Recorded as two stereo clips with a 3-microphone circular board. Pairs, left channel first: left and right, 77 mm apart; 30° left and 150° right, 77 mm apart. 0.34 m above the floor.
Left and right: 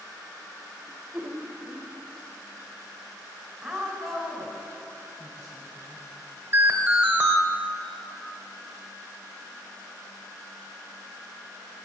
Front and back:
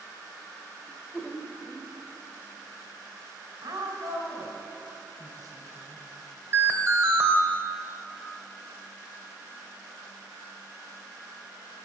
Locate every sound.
0.9 s laughter: 40° right, 1.0 m
3.6 s a woman speaking: straight behind, 2 m
6.5 s an alarm: 130° right, 0.8 m